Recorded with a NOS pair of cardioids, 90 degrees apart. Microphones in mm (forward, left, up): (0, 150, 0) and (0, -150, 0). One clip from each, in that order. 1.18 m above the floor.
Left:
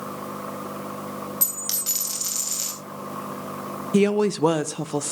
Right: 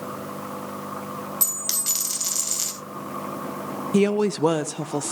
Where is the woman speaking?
Straight ahead, 0.6 m.